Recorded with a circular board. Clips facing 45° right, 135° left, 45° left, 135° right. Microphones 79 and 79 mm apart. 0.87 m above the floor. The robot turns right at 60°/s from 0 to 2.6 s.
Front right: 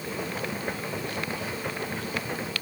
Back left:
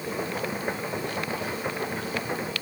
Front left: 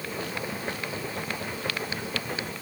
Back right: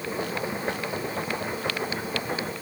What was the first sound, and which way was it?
Only background noise.